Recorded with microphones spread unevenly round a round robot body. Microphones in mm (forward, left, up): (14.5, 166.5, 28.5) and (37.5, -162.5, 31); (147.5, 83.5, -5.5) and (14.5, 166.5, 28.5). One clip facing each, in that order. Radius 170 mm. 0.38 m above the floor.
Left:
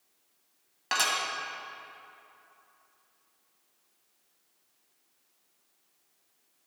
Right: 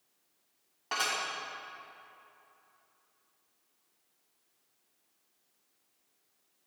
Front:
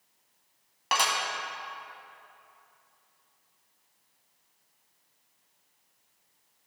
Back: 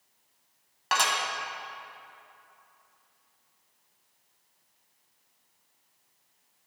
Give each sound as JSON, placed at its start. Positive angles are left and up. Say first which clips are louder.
{"t": 0.9, "sound": "dishes clattering", "louder": "left 3 dB, even", "azimuth_deg": 50, "distance_m": 1.9}